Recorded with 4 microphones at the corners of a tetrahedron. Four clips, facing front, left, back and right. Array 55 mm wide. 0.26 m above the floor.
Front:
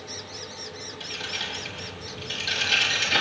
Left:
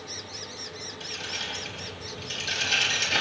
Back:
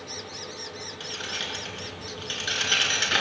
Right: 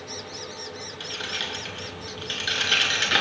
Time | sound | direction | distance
1.0 | keys jangling | 110° right | 2.5 m